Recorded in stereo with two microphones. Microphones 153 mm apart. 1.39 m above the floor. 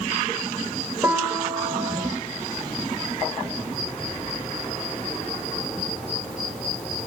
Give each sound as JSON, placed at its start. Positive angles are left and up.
{"t": 1.0, "sound": "a piano", "side_deg": -15, "distance_m": 1.0}